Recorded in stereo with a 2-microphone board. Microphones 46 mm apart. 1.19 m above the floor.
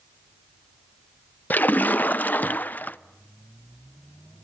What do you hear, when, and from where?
1.5 s a splash: 45° left (ahead or behind), 0.6 m